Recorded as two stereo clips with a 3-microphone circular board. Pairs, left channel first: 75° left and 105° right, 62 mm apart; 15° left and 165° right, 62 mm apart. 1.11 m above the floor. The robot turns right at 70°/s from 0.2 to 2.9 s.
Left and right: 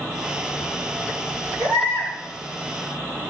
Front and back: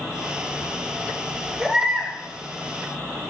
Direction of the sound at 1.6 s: 100° left.